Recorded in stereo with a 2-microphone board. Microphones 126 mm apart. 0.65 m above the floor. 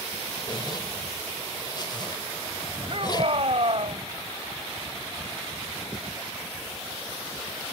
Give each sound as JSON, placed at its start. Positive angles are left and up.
{"t": 0.5, "sound": "a zipper", "side_deg": 40}
{"t": 2.9, "sound": "a shout", "side_deg": -55}